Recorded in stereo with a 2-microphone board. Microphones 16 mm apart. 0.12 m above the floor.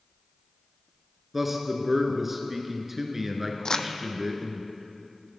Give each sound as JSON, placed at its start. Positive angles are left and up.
{"t": 1.3, "sound": "a man speaking", "side_deg": -15, "distance_m": 1.8}
{"t": 3.6, "sound": "crumpling", "side_deg": 40, "distance_m": 0.7}